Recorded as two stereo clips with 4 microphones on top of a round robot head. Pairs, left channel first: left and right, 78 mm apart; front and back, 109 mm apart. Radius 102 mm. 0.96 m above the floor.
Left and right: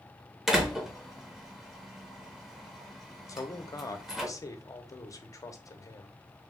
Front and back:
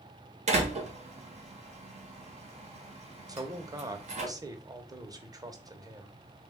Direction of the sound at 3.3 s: 130° left.